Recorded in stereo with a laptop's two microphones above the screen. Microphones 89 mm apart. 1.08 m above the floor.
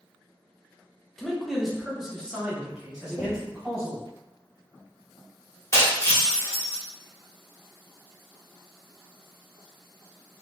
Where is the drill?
No drill in this recording.